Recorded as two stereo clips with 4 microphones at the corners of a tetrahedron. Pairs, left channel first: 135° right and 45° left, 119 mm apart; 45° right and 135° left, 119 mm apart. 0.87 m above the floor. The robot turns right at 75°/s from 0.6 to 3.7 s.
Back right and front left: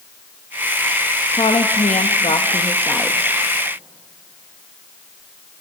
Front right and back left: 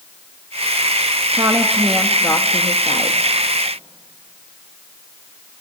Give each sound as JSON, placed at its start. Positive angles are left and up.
{"t": 1.3, "sound": "a woman speaking", "azimuth_deg": 180, "distance_m": 0.9}